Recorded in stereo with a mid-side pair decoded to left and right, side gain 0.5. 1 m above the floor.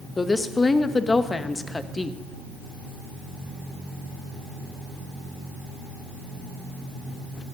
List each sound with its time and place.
0.2 s a woman speaking: 25° left, 0.8 m